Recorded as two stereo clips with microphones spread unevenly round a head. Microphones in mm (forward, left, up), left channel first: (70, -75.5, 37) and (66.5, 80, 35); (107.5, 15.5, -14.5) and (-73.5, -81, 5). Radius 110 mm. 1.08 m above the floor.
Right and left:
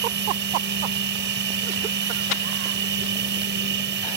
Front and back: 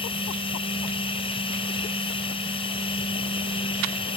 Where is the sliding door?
I don't hear a sliding door.